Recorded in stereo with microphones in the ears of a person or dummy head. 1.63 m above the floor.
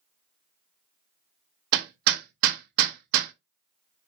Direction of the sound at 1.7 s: 60° right (ahead or behind).